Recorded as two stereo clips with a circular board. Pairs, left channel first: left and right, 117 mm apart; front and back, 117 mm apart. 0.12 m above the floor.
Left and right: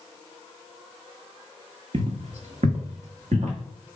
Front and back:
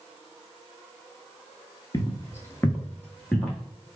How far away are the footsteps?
About 0.7 m.